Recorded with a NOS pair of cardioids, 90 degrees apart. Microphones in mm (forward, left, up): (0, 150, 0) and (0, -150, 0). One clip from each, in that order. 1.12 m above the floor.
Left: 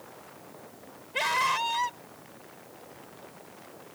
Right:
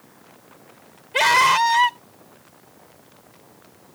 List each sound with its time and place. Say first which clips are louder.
1.1 s a scream: right 11 dB; 70° right